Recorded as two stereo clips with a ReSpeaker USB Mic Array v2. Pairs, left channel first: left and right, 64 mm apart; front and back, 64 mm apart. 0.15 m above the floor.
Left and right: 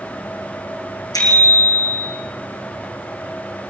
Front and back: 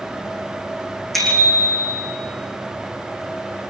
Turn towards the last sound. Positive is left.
turn(degrees=90)